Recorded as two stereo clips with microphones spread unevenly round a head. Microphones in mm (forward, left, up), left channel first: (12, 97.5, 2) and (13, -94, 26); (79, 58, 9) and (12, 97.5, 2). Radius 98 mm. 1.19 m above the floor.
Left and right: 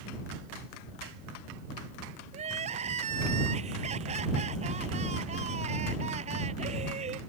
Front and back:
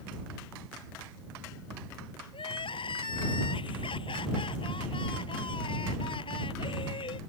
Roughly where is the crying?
Ahead right.